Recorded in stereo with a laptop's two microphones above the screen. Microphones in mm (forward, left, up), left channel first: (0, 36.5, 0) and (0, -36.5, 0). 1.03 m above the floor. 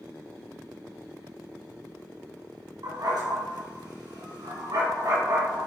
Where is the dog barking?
75° right (ahead or behind), 3.5 m.